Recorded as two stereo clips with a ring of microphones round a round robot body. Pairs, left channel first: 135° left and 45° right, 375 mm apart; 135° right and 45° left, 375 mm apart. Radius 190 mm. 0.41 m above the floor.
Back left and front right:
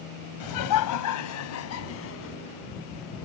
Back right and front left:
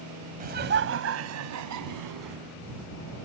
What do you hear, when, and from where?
0.4 s laughter: 110° left; by 2.4 s 80° left